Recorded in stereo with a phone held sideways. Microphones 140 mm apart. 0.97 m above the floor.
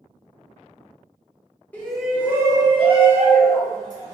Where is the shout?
10° left (ahead or behind), 1.1 m; by 4.1 s 65° right (ahead or behind), 1.9 m.